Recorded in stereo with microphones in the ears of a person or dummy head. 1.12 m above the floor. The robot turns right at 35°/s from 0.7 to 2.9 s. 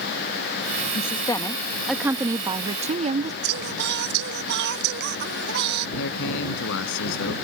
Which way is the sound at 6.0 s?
75° left (ahead or behind).